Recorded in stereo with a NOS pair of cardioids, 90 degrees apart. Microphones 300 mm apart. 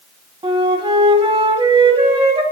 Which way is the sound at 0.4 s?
20° right.